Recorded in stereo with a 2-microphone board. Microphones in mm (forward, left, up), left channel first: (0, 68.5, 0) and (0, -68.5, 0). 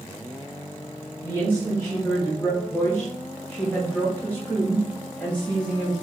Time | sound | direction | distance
1.2 | a woman speaking | 15° left (ahead or behind) | 1.6 m